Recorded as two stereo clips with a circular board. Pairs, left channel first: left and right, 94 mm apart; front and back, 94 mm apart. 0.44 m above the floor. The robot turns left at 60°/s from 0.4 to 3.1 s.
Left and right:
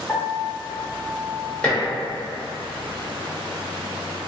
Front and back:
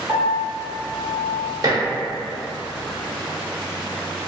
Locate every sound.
0.1 s a piano: 145° left, 0.9 m; by 1.5 s 80° left, 0.9 m
1.6 s dishes clattering: 165° left, 1.0 m; by 1.8 s 155° left, 1.0 m